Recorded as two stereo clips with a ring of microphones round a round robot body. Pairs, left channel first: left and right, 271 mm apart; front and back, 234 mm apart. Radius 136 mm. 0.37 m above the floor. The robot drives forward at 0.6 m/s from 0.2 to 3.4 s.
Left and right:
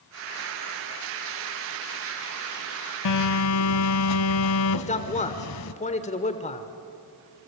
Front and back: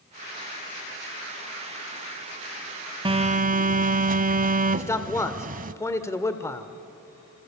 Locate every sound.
3.0 s a phone buzzing: 110° left, 0.8 m; by 5.7 s 125° left, 0.9 m
4.7 s a man speaking: 65° left, 1.2 m